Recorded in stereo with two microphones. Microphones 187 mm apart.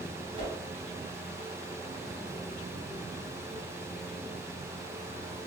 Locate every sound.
0.4 s a whoosh: 80° right, 1.6 m